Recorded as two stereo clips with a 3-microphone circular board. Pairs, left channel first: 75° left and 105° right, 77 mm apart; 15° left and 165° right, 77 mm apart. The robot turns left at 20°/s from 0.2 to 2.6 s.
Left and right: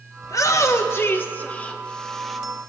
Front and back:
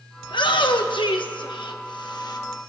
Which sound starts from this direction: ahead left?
A shout, at 0.2 s.